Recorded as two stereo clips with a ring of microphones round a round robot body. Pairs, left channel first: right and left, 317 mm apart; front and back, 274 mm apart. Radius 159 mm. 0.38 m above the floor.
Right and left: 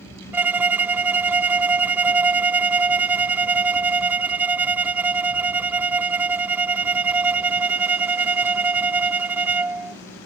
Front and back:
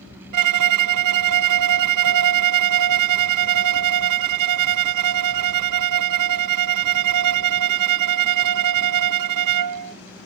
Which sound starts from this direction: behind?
A violin, at 0.3 s.